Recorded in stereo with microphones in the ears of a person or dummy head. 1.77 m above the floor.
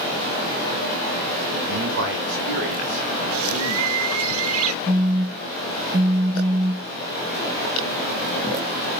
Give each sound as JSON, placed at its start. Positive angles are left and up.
{"t": 1.7, "sound": "a man speaking", "side_deg": -65, "distance_m": 2.0}
{"t": 3.3, "sound": "a bird", "side_deg": -75, "distance_m": 0.6}
{"t": 4.9, "sound": "a phone buzzing", "side_deg": -20, "distance_m": 0.6}